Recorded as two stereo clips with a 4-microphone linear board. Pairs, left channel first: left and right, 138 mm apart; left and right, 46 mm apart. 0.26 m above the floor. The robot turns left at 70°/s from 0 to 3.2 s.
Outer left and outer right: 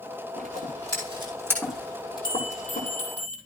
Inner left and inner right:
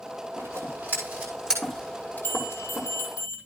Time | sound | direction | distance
0.4 | scissors | 85° right | 7 m
2.2 | a bell | 145° left | 7.5 m